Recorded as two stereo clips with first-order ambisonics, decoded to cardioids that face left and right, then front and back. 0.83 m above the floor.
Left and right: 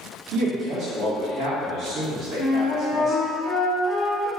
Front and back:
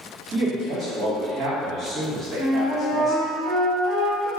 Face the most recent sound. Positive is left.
turn(degrees=145)